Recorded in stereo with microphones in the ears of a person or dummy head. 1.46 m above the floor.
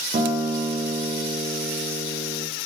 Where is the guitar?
35° right (ahead or behind), 0.9 m.